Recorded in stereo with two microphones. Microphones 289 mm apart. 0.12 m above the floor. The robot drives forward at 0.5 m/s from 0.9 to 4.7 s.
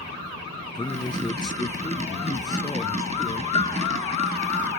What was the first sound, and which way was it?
A man speaking, 15° left (ahead or behind).